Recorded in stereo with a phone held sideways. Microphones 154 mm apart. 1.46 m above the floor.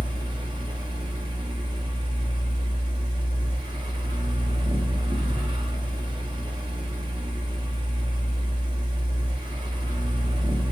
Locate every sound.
0.0 s a fan: 30° right (ahead or behind), 1.0 m